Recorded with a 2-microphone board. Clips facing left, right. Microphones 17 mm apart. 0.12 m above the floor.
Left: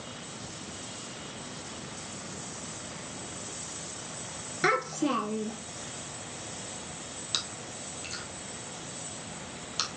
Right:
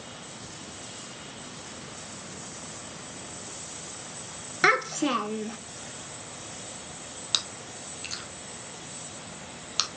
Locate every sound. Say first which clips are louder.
4.6 s a child speaking: right 4 dB; 25° right (ahead or behind), 0.9 m
7.3 s chewing: right 5 dB; 15° right (ahead or behind), 0.8 m